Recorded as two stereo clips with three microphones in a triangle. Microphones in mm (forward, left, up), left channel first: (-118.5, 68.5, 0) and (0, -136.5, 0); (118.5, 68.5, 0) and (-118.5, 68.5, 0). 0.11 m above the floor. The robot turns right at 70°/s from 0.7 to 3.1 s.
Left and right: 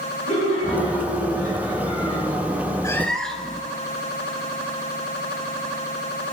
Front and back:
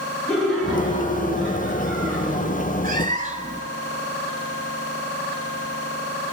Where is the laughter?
90° left, 5.5 m; by 2.7 s 125° right, 5.5 m.